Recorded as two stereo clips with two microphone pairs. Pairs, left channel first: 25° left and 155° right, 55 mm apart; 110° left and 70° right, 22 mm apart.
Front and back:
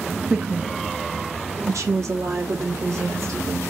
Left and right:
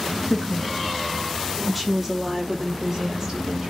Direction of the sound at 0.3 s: 130° left.